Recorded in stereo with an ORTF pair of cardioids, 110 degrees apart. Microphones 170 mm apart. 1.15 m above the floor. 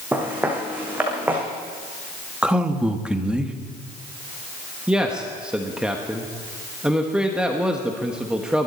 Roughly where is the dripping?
No dripping in this recording.